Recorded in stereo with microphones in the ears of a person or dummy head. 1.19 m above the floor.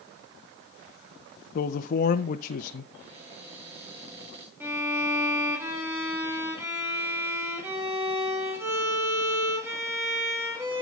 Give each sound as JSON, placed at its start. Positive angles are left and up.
{"t": 1.6, "sound": "a man speaking", "side_deg": 45, "distance_m": 0.7}
{"t": 2.9, "sound": "a cupboard door", "side_deg": -35, "distance_m": 7.0}
{"t": 4.6, "sound": "a violin", "side_deg": -15, "distance_m": 2.5}